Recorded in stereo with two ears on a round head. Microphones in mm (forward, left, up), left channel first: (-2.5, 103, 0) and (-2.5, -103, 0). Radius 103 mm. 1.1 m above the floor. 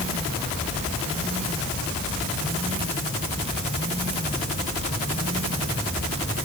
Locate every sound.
Only background noise.